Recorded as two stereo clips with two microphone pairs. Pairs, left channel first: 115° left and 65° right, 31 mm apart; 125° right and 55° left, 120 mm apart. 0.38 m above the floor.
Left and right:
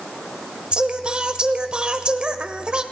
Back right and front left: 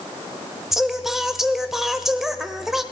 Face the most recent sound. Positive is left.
turn(degrees=-30)